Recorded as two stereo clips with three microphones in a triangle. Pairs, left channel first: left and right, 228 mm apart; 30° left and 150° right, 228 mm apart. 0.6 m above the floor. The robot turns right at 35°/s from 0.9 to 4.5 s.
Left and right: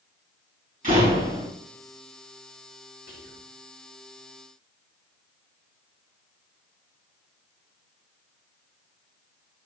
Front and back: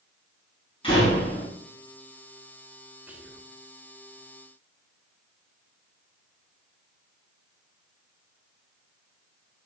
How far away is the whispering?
About 2.5 m.